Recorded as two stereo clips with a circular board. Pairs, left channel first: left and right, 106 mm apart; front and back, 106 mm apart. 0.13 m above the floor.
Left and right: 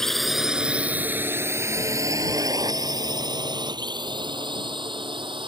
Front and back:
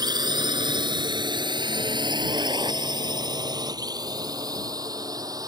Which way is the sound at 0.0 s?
175° left.